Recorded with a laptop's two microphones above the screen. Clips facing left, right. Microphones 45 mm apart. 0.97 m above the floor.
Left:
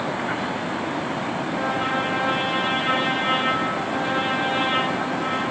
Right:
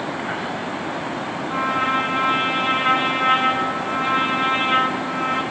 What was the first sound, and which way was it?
A trumpet, 55° right (ahead or behind).